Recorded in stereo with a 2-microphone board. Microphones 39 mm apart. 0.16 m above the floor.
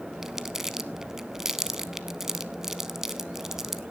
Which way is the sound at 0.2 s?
10° right (ahead or behind).